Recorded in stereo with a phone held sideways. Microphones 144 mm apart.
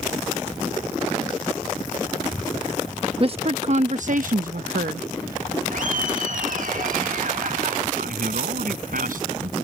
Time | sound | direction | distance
3.2 | a woman speaking | 40° right (ahead or behind) | ?
5.7 | laughter | 65° right (ahead or behind) | ?
8.0 | a man speaking | 70° right (ahead or behind) | ?